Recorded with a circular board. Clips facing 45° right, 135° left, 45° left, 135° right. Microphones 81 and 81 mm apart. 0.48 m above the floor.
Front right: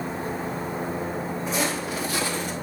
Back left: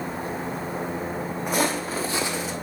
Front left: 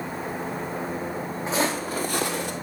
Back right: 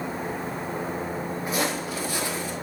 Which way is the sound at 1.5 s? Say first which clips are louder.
Back left 4 dB, front left 3 dB; 105° left.